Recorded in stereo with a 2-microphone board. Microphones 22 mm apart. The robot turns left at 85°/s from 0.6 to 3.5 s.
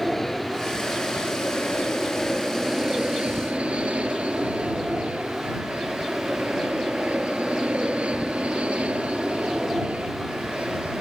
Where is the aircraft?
15° left (ahead or behind); by 11.0 s 80° right.